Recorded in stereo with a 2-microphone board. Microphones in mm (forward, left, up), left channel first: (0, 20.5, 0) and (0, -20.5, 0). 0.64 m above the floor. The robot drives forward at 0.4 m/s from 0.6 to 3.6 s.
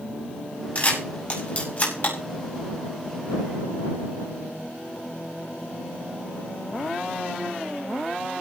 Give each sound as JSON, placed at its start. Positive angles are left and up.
{"t": 0.8, "sound": "a camera shutter", "side_deg": 30, "distance_m": 5.5}